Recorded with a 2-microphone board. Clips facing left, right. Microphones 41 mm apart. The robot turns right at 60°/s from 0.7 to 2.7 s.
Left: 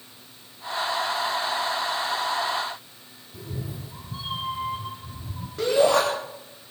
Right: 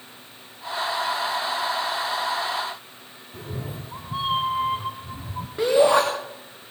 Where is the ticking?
I don't hear ticking.